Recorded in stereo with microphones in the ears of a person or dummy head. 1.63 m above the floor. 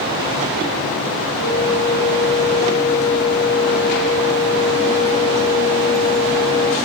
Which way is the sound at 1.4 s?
5° right (ahead or behind).